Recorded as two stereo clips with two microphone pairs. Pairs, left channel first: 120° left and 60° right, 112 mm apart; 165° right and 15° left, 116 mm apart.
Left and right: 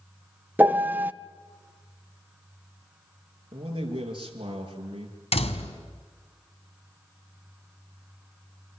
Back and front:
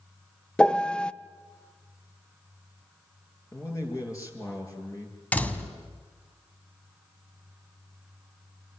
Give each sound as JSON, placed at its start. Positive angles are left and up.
{"t": 0.6, "sound": "a piano", "azimuth_deg": -100, "distance_m": 0.7}
{"t": 3.5, "sound": "a man speaking", "azimuth_deg": -100, "distance_m": 7.0}
{"t": 5.3, "sound": "a door slam", "azimuth_deg": 120, "distance_m": 2.0}